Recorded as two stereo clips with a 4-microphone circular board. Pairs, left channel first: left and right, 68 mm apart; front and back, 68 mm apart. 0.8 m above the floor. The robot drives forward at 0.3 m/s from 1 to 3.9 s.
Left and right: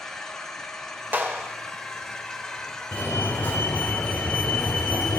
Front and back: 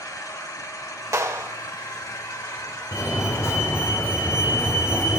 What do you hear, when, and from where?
0.0 s an engine running: 10° left, 2.5 m; by 5.2 s 15° left, 1.7 m
1.1 s a clap: 145° right, 1.9 m
2.9 s a fire alarm: 40° left, 4 m